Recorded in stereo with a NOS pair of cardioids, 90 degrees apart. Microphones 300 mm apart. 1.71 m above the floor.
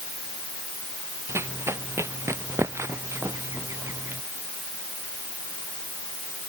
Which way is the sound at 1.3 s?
10° right.